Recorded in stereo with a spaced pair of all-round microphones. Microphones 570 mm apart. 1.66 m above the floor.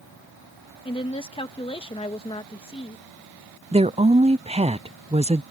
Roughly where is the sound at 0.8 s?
Centre.